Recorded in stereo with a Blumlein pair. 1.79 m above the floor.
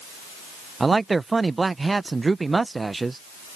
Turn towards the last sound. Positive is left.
turn(degrees=-10)